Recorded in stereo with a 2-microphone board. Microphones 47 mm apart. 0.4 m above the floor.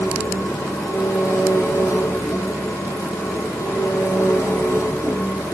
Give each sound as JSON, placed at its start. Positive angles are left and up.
{"t": 0.0, "sound": "an engine running", "side_deg": 85, "distance_m": 5.5}